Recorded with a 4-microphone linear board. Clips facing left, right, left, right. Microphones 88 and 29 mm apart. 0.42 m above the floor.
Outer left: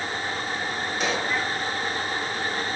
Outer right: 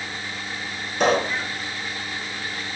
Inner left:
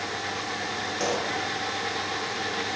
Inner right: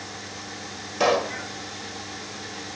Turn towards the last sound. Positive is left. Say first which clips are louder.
# outer right 8 dB, inner right 8 dB
turn(degrees=-55)  # may be behind; listen again after turning